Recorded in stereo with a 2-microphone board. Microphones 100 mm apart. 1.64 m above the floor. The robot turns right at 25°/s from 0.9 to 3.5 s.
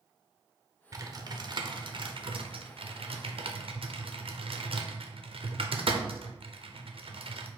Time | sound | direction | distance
0.9 | typing on a keyboard | 35° right (ahead or behind) | 0.6 m